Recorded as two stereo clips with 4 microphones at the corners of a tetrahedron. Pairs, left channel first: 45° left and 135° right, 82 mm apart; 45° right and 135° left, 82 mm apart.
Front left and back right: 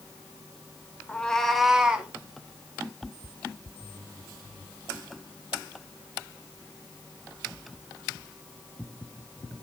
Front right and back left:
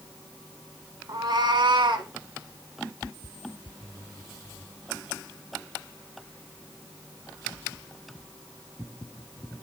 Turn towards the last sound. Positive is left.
turn(degrees=150)